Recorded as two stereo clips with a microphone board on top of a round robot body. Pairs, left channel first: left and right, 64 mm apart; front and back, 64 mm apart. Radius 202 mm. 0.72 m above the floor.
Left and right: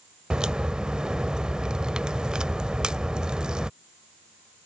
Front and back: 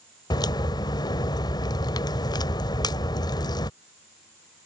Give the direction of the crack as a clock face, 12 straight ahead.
12 o'clock.